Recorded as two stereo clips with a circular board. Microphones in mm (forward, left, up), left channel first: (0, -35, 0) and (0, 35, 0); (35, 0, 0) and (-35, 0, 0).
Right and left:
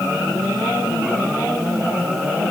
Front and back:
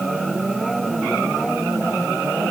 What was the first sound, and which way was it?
Only background noise.